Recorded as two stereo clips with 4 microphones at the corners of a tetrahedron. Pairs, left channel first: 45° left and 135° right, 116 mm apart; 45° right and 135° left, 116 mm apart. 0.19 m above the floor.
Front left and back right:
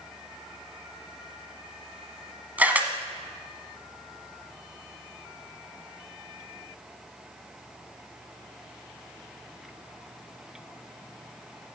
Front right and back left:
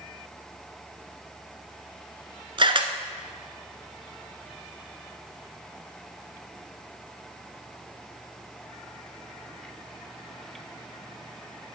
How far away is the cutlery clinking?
No cutlery clinking in this recording.